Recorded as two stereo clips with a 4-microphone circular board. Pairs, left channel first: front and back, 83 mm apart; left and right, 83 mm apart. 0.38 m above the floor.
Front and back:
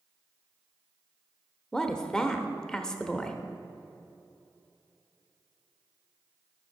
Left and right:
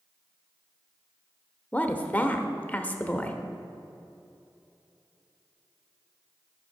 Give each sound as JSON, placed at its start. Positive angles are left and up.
{"t": 1.7, "sound": "a woman speaking", "azimuth_deg": 65, "distance_m": 0.8}